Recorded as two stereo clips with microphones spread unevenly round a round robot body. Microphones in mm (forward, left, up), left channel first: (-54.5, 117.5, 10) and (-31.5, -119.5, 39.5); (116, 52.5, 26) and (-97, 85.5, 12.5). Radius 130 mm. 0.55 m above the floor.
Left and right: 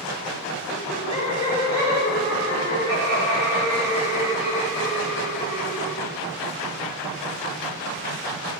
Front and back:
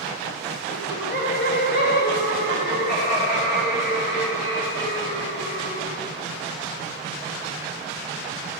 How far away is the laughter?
About 1.8 m.